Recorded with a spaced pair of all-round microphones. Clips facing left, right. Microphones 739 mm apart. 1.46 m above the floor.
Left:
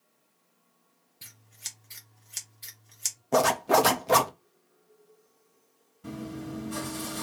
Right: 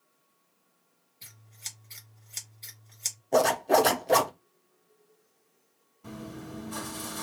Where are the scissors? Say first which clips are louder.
Right 1 dB; 45° left (ahead or behind), 1.0 m.